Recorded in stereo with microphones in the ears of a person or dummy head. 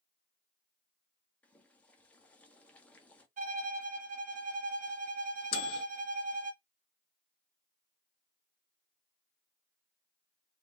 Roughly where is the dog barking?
No dog barking in this recording.